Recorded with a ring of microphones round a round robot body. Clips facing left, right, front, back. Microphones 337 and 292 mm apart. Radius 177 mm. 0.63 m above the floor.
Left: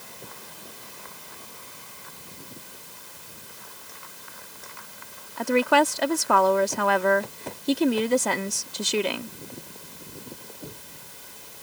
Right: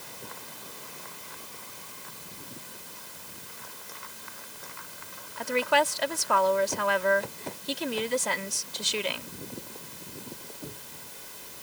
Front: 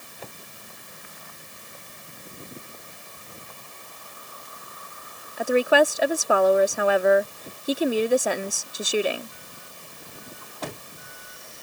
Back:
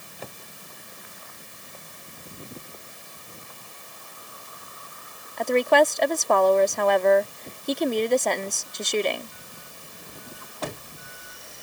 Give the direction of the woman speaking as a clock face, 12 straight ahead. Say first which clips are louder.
Left 6 dB, even; 9 o'clock.